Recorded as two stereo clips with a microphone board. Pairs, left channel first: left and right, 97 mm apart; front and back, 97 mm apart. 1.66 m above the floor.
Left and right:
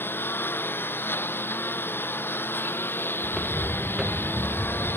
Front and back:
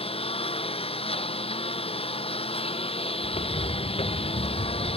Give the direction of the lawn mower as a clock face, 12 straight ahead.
11 o'clock.